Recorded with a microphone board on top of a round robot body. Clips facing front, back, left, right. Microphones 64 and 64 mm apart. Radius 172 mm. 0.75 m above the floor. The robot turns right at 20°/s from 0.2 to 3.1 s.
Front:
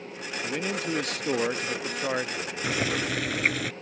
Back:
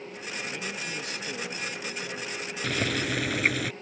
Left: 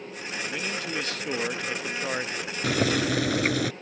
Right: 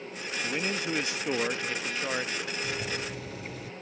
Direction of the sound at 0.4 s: 30° right.